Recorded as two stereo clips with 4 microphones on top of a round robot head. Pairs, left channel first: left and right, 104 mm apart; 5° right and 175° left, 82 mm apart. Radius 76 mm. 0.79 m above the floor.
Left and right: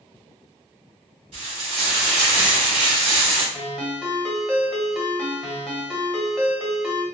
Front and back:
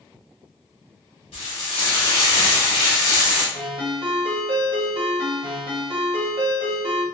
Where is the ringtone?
175° left, 0.9 m.